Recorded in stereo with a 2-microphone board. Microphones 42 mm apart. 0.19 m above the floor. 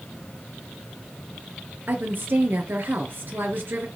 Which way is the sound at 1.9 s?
55° right (ahead or behind).